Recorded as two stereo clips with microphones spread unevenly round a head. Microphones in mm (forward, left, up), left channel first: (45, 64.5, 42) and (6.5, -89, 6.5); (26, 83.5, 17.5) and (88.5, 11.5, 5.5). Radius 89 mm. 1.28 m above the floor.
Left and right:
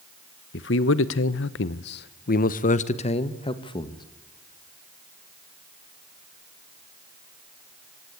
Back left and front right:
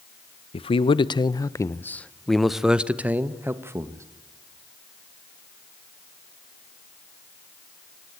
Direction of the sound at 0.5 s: 105° left.